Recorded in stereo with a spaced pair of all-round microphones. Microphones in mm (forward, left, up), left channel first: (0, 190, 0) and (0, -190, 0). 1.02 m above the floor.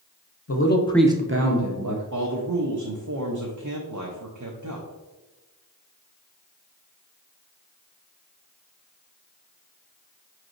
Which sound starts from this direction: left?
A man speaking, at 0.5 s.